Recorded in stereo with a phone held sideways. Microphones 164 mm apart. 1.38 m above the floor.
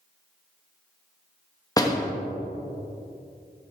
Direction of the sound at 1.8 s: 20° left (ahead or behind).